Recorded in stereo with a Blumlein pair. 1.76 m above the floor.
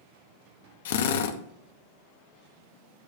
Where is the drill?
60° left, 0.9 m.